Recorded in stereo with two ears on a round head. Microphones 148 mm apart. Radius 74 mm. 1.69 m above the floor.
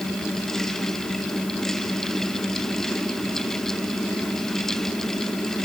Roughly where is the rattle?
I don't hear a rattle.